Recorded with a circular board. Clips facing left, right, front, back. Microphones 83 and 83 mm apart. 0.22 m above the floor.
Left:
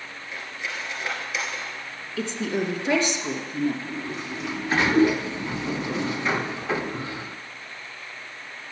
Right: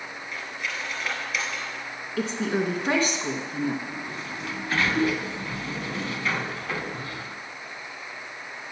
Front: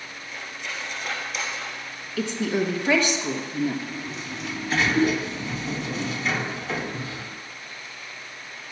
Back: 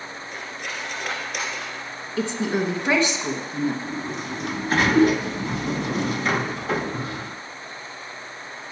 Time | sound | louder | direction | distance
0.3 | cutlery clinking | even, back 1 dB | 160° left | 2.5 m
2.2 | a woman speaking | right 1 dB, back 1 dB | 125° right | 2 m
3.9 | a sliding door | left 3 dB, back 4 dB | 155° left | 0.7 m